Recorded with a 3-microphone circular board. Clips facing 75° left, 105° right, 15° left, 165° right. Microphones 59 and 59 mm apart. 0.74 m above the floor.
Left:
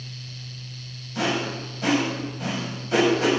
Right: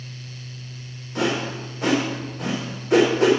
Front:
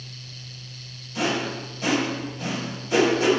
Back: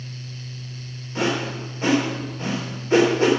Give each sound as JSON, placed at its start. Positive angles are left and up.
{"t": 1.1, "sound": "a whoosh", "azimuth_deg": -115, "distance_m": 3.0}